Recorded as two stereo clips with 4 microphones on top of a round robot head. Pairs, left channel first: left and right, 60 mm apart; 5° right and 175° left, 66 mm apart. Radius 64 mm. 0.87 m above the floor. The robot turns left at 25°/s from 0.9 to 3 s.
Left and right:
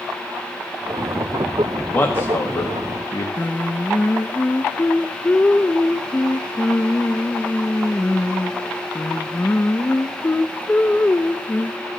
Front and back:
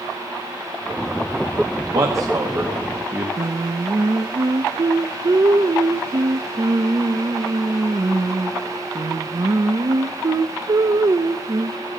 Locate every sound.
1.9 s a man speaking: 150° left, 1.6 m; by 3.3 s 120° left, 1.6 m
3.4 s singing: 150° left, 0.6 m